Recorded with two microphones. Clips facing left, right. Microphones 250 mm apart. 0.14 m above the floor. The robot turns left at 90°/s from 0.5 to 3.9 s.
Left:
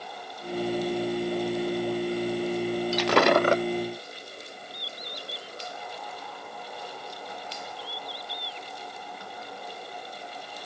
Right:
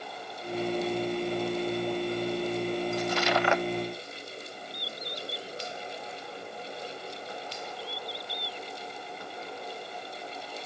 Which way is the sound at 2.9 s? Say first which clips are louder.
Left 7 dB; 95° left.